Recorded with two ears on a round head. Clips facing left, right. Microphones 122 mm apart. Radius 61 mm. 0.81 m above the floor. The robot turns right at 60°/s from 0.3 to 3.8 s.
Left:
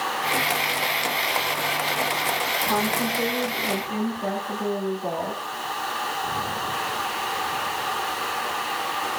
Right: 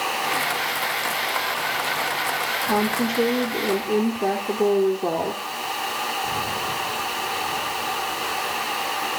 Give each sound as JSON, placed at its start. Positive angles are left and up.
{"t": 2.7, "sound": "a woman speaking", "azimuth_deg": -160, "distance_m": 2.5}